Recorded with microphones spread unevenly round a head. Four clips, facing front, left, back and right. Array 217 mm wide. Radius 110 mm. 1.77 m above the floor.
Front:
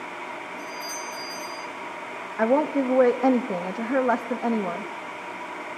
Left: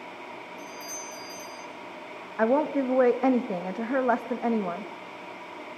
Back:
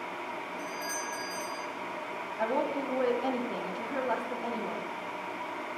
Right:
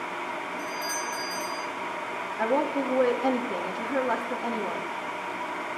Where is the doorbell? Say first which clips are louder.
Right 8 dB, front 2 dB; 90° left, 8 m.